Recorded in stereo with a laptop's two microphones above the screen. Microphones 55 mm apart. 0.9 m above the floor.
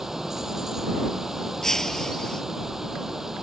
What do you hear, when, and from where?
0.0 s running water: 5° right (ahead or behind)
1.6 s breaking glass: 10° left (ahead or behind)